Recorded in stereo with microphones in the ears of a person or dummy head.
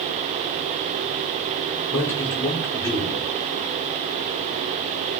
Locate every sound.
1.9 s a man speaking: 10° left (ahead or behind), 2.0 m